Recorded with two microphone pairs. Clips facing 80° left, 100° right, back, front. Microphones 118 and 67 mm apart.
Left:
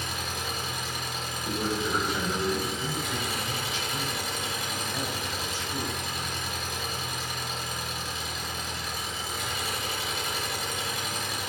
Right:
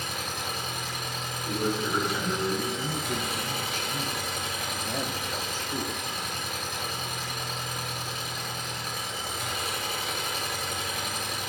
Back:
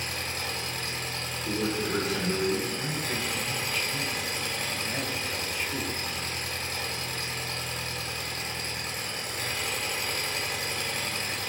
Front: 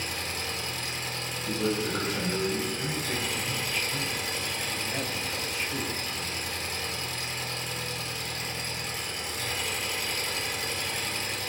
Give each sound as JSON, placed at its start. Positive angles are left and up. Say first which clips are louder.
{"t": 0.0, "sound": "an engine running", "louder": "even, even", "azimuth_deg": -135, "distance_m": 2.5}
{"t": 1.4, "sound": "a man speaking", "louder": "right 1 dB, front 1 dB", "azimuth_deg": 165, "distance_m": 2.0}
{"t": 2.8, "sound": "a man speaking", "louder": "right 1 dB, even", "azimuth_deg": -90, "distance_m": 0.7}